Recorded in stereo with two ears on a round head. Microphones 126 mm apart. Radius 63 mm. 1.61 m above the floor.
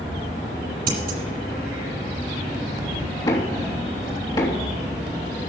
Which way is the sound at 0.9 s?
75° right (ahead or behind).